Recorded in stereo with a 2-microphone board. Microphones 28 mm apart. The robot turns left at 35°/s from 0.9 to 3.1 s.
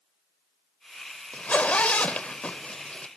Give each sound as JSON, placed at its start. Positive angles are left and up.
{"t": 1.3, "sound": "a zipper", "side_deg": 60, "distance_m": 0.5}